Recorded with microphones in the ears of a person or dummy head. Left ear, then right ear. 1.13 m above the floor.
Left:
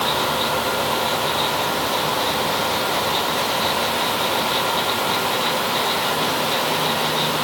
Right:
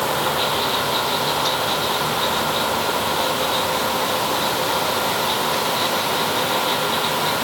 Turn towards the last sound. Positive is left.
No sound to turn to.